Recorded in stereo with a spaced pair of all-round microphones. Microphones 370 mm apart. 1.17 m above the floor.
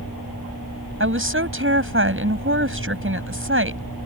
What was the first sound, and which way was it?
A woman speaking, 35° right (ahead or behind).